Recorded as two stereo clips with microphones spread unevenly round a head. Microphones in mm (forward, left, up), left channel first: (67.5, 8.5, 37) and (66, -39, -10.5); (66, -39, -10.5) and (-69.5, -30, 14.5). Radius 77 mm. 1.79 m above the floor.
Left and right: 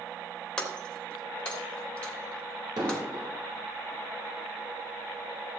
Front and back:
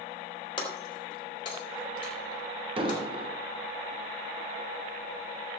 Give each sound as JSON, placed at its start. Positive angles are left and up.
{"t": 0.6, "sound": "breaking glass", "azimuth_deg": 60, "distance_m": 2.5}
{"t": 2.8, "sound": "an explosion", "azimuth_deg": -140, "distance_m": 1.6}